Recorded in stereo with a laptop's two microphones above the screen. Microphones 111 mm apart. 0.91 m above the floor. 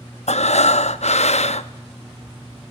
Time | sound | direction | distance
0.3 | breathing | 85° left | 0.7 m